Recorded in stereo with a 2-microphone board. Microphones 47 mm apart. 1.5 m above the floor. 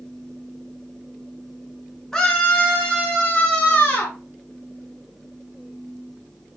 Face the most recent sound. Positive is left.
turn(degrees=40)  # may be behind; listen again after turning